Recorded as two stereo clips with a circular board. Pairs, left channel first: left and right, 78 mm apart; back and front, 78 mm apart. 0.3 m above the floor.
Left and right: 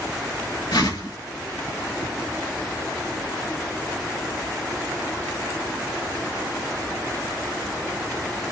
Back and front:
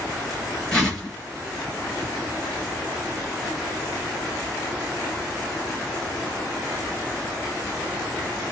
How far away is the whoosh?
About 3 m.